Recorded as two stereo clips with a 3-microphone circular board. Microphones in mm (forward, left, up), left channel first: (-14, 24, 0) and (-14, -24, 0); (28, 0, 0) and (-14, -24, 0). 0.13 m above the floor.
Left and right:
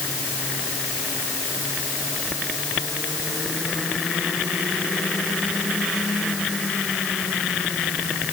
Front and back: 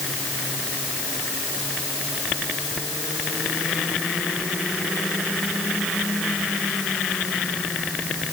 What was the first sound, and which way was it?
Only background noise.